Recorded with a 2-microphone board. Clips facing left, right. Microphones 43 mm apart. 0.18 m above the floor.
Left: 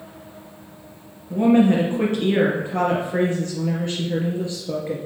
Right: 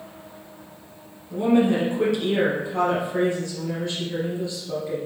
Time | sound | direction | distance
1.3 | a woman speaking | 40° left (ahead or behind) | 3 m